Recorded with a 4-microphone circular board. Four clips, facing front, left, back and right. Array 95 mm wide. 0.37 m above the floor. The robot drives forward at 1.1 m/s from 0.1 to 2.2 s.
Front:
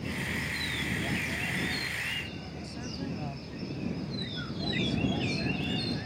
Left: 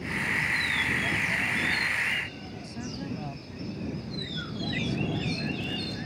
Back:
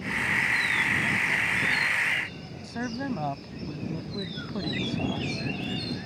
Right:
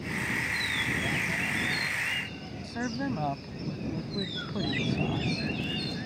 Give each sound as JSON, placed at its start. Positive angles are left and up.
{"t": 2.6, "sound": "a woman speaking", "azimuth_deg": -140}